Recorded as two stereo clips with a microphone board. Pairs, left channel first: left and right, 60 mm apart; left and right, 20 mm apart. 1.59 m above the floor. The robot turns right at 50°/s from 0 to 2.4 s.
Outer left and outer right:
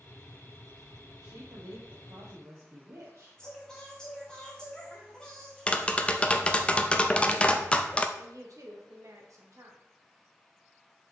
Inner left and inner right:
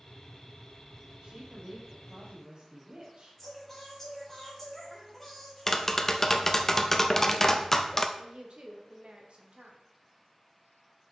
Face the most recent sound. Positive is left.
turn(degrees=-60)  # may be behind; listen again after turning